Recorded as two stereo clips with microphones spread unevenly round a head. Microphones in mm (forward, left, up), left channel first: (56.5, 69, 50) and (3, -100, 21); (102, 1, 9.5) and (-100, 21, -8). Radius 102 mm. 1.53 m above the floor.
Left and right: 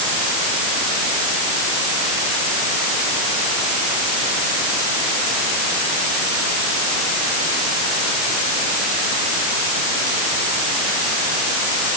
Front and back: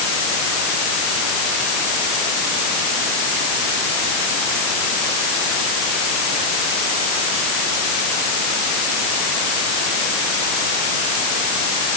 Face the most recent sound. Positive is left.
No sound to turn to.